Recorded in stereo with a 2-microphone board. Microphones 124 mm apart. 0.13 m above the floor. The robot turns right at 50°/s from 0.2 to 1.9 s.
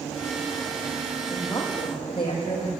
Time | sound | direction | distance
1.3 | a woman speaking | 15° left | 7 m